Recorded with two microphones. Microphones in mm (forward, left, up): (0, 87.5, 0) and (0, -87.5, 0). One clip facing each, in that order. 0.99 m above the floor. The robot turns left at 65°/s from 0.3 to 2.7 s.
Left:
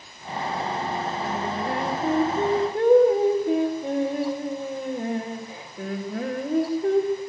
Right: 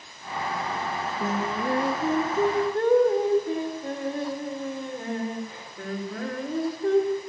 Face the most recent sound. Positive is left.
turn(degrees=160)